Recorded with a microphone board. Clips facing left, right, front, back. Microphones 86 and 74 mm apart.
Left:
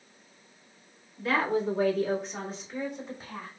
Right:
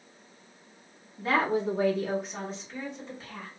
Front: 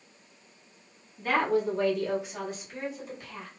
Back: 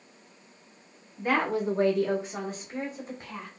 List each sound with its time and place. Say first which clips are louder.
1.2 s a woman speaking: right 1 dB, front 1 dB; 115° right, 1.1 m; by 3.5 s 155° left, 1.4 m